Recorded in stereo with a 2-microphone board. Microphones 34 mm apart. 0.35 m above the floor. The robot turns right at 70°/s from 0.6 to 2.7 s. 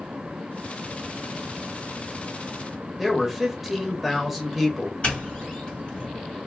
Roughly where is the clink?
No clink in this recording.